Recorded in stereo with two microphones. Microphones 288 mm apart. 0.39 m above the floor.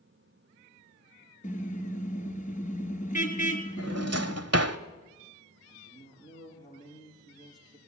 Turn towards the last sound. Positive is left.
turn(degrees=15)  # may be behind; listen again after turning